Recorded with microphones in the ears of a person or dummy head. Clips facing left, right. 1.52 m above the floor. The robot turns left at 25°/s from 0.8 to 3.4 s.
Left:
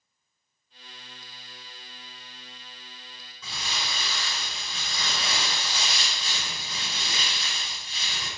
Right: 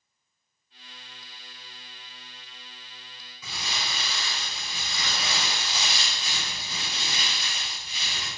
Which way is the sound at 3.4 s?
10° right (ahead or behind).